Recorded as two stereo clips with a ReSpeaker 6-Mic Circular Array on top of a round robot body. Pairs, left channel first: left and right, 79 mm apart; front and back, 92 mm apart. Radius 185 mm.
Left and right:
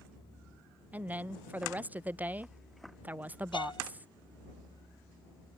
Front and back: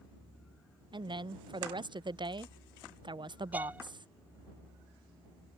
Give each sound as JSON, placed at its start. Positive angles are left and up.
{"t": 0.9, "sound": "a woman speaking", "azimuth_deg": -155}
{"t": 3.5, "sound": "a violin", "azimuth_deg": 105}